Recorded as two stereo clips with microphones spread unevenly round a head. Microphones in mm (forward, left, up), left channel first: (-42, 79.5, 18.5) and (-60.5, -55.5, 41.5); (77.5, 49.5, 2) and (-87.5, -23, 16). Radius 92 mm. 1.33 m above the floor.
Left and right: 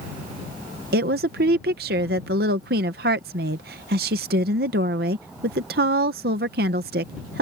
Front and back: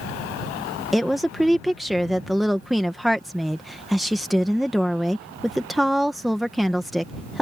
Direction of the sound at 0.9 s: 65° right.